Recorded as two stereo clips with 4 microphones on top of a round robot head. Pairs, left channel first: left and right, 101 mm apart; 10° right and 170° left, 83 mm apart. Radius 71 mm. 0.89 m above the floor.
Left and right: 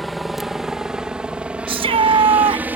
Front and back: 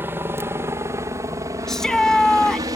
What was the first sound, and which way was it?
A helicopter, straight behind.